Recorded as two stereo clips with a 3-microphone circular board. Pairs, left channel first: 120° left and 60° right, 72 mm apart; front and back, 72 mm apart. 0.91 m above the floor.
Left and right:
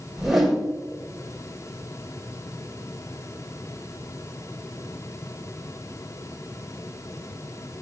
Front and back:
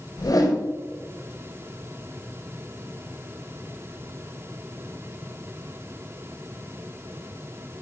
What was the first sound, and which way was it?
A whoosh, 25° left.